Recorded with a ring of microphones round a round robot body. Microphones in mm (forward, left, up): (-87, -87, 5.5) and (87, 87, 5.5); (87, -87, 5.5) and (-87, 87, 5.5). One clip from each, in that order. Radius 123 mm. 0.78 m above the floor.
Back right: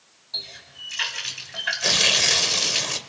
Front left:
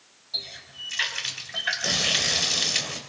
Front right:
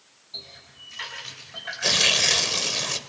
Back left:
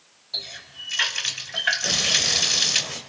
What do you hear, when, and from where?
0.3 s a running tap: 135° left, 3.5 m
1.8 s tearing paper: 90° right, 2.5 m